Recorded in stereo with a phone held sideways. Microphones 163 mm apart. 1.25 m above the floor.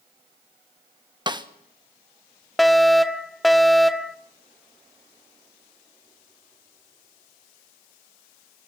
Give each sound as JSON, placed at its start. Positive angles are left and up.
{"t": 1.3, "sound": "a snare drum", "side_deg": -30, "distance_m": 1.3}
{"t": 2.6, "sound": "a fire alarm", "side_deg": 0, "distance_m": 0.9}